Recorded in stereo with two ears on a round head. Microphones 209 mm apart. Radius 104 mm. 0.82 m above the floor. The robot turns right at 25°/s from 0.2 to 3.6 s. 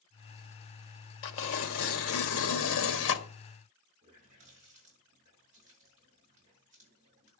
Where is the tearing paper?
70° left, 1.3 m; by 3.2 s 120° left, 1.3 m.